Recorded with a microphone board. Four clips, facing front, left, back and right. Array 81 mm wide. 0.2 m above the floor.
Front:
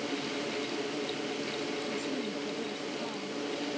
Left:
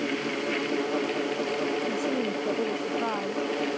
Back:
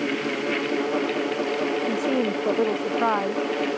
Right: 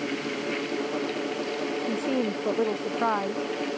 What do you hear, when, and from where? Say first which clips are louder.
1.9 s a woman speaking: right 1 dB, back 12 dB; 160° right